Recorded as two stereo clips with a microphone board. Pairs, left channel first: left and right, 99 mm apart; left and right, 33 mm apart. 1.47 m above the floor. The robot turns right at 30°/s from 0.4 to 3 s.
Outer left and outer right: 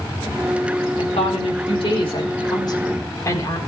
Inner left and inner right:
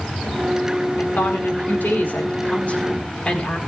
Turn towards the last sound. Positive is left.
turn(degrees=145)